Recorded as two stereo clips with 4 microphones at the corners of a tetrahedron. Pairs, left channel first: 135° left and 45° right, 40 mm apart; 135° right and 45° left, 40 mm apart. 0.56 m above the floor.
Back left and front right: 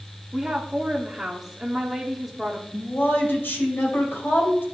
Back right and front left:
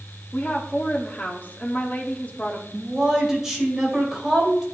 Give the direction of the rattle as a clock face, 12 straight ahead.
No rattle in this recording.